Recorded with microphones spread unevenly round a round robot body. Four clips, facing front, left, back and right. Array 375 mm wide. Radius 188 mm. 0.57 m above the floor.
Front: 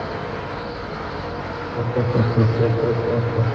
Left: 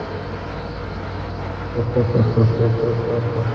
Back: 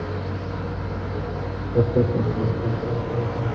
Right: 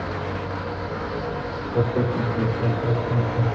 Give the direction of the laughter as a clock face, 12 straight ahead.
6 o'clock.